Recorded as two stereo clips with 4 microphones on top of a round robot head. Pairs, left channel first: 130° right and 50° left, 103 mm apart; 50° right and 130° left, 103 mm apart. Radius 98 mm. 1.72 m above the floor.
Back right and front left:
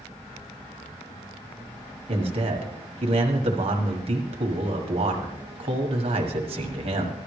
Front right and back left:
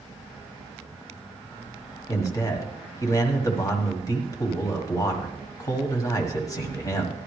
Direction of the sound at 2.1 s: 15° left.